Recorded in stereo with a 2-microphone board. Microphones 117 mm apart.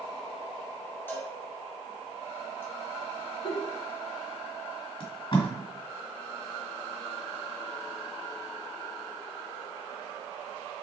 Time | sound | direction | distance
1.1 | a cowbell | 15° left (ahead or behind) | 1.2 m
3.4 | a giggle | 50° left (ahead or behind) | 0.6 m
5.0 | tape being pulled | 45° left (ahead or behind) | 1.5 m